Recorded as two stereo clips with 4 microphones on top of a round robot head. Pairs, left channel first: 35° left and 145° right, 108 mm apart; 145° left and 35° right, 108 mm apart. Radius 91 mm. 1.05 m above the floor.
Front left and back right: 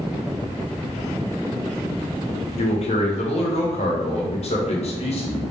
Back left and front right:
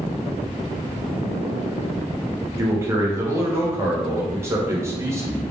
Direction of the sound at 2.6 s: 25° left.